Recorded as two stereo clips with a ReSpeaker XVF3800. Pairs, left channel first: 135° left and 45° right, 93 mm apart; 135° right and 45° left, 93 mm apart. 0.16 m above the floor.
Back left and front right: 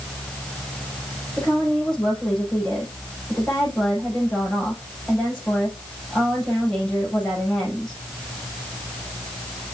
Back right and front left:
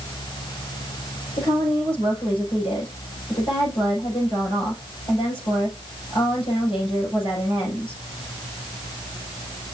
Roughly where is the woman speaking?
Behind right.